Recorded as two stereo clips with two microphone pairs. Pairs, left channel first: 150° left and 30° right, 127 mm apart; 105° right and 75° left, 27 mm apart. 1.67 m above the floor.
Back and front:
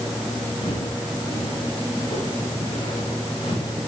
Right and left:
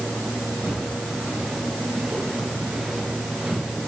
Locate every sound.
0.6 s footsteps: 115° left, 6.5 m; by 3.8 s 110° left, 9.5 m